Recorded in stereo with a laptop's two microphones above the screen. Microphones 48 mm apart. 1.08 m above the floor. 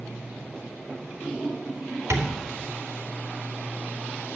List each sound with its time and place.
2.1 s tapping: 80° right, 2.5 m